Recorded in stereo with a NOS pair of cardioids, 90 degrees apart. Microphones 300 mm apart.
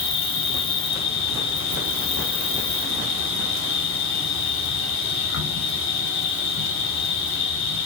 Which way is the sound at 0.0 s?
45° left.